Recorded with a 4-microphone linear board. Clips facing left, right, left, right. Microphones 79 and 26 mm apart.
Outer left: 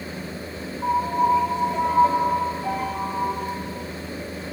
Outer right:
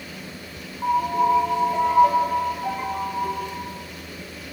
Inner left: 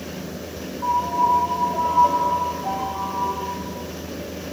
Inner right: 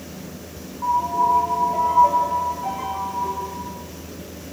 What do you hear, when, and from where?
0.8 s a piano: 30° right (ahead or behind), 4.5 m